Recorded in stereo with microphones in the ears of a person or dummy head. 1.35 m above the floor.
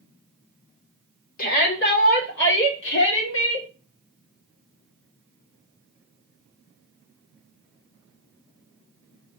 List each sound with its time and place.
1.4 s a shout: 55° left (ahead or behind), 3.5 m; by 3.7 s 85° left, 3 m